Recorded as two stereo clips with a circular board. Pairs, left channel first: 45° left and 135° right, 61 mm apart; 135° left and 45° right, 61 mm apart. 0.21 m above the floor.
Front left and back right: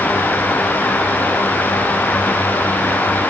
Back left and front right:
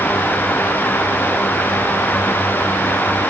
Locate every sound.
Only background noise.